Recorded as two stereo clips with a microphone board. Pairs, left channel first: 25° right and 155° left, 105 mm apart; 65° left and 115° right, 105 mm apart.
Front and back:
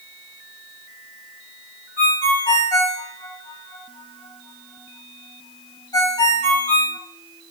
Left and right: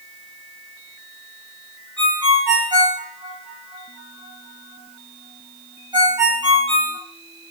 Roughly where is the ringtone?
Right.